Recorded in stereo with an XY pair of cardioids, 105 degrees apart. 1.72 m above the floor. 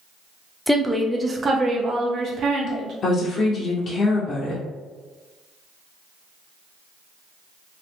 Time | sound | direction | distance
0.7 | a woman speaking | 5° left | 0.8 m
3.0 | a woman speaking | 55° left | 0.7 m